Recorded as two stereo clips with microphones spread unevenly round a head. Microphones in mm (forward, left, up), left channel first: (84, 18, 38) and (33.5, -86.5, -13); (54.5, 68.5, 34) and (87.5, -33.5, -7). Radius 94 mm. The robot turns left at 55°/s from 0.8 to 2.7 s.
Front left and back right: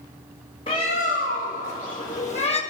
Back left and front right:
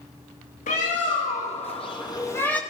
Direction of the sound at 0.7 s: 125° left.